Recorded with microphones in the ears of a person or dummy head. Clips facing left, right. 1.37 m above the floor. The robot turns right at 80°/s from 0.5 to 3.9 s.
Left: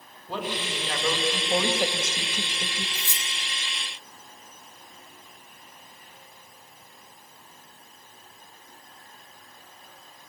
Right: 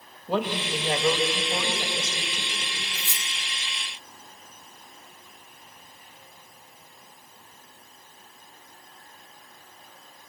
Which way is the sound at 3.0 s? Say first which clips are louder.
Left 1 dB; 30° left (ahead or behind).